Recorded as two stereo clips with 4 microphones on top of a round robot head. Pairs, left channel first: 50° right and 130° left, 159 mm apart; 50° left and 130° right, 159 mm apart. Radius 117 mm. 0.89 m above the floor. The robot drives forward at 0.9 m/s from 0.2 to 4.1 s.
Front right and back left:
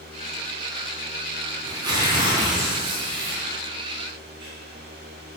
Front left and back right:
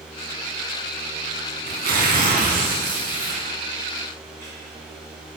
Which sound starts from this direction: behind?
Tearing paper, at 1.6 s.